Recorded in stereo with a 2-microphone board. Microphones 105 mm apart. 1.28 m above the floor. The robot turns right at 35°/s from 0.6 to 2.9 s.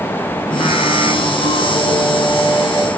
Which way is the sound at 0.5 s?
95° left.